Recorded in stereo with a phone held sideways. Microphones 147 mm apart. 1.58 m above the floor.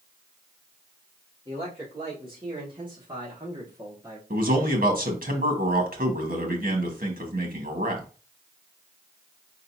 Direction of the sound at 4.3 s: 65° right (ahead or behind).